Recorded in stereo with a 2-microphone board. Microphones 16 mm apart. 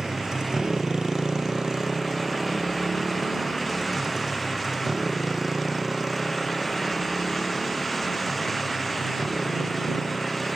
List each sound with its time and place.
0.0 s a motorcycle: 80° right; by 10.6 s 30° right (ahead or behind)